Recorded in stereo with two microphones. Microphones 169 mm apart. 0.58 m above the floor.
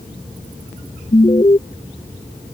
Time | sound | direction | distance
1.1 | an alarm | 30° left (ahead or behind) | ?